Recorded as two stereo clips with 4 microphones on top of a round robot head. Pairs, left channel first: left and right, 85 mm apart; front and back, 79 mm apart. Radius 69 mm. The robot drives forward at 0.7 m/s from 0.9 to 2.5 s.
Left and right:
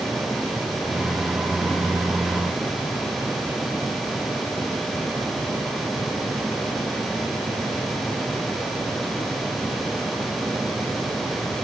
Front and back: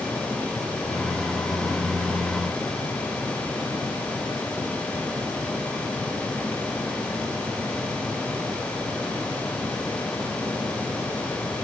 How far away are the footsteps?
I don't hear footsteps.